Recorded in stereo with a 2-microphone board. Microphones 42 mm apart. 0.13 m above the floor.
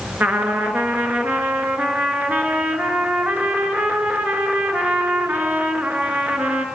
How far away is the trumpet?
About 1.7 m.